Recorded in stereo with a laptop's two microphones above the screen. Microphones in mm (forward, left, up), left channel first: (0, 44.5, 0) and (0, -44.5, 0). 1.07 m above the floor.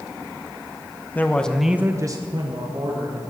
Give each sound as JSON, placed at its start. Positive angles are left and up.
{"t": 1.1, "sound": "a man speaking", "side_deg": 20, "distance_m": 1.2}